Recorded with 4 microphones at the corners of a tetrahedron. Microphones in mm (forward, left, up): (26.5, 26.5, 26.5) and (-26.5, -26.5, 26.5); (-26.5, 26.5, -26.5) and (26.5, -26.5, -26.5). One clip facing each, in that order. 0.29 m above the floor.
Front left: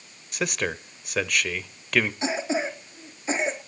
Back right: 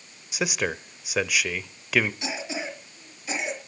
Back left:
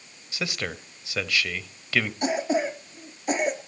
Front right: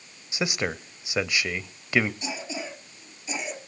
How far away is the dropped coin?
I don't hear a dropped coin.